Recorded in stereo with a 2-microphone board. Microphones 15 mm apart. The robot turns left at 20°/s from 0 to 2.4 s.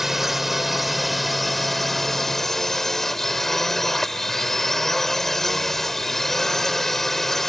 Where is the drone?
160° right; by 7.5 s 155° left.